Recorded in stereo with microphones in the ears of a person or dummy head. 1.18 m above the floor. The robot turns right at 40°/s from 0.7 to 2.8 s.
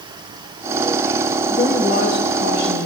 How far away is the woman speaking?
About 1.7 m.